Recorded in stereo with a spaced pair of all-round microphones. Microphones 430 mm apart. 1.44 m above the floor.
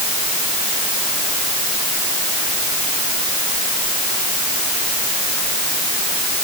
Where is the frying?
I don't hear frying.